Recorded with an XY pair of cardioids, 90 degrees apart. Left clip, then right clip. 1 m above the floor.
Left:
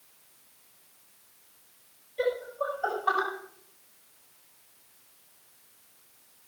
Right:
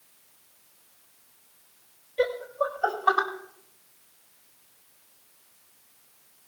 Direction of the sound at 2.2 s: 55° right.